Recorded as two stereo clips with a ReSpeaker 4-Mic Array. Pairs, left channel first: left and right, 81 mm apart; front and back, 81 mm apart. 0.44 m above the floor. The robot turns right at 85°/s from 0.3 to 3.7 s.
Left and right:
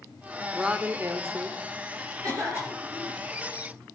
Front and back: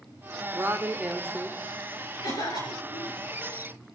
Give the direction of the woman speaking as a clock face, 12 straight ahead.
6 o'clock.